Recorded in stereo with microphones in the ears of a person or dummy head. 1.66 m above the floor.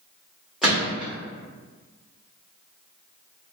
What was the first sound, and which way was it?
A gunshot, centre (ahead or behind).